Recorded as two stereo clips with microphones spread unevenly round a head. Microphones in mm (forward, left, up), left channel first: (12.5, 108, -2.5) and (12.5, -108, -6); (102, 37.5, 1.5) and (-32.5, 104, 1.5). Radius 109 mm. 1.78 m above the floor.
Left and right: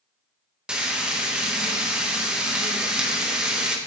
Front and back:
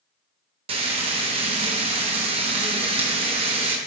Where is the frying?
175° right, 1.1 m.